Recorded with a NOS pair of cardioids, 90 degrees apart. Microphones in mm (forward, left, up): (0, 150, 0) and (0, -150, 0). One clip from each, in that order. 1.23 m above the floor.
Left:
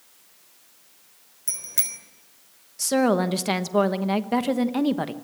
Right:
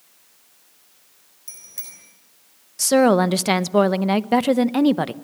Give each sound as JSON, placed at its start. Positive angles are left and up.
{"t": 1.5, "sound": "a bicycle bell", "azimuth_deg": 65, "distance_m": 3.5}
{"t": 2.8, "sound": "a woman speaking", "azimuth_deg": -30, "distance_m": 1.0}